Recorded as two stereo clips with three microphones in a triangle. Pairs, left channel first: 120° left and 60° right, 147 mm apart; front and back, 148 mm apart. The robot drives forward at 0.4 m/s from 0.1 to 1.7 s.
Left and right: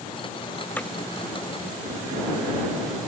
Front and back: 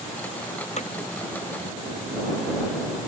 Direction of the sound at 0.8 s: 40° left.